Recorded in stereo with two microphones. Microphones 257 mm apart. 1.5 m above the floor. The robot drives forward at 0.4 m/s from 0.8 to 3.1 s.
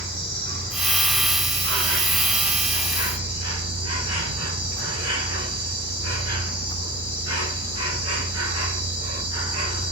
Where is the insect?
55° right (ahead or behind), 3.5 m; by 9.9 s 70° right (ahead or behind), 3 m.